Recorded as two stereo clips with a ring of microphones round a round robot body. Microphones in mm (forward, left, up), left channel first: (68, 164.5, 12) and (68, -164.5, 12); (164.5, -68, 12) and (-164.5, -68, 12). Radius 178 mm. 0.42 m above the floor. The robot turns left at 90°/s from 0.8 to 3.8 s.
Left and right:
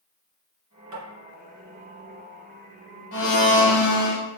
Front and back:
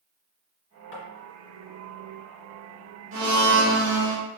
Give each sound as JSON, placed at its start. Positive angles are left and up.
{"t": 0.9, "sound": "tapping", "azimuth_deg": -55, "distance_m": 2.0}
{"t": 3.1, "sound": "a blender", "azimuth_deg": 140, "distance_m": 1.1}